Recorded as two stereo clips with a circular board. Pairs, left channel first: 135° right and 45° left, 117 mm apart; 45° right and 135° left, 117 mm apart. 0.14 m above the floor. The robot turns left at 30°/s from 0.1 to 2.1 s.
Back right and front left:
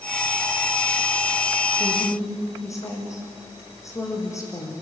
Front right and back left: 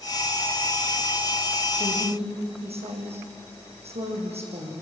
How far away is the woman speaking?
About 7 m.